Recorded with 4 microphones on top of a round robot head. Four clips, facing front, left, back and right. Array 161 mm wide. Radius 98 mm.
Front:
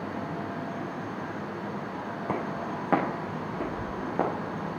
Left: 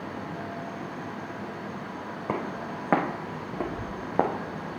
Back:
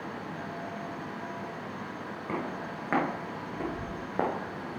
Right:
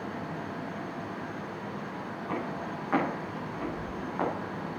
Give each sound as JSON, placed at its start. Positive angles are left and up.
{"t": 2.3, "sound": "footsteps", "azimuth_deg": 60, "distance_m": 4.0}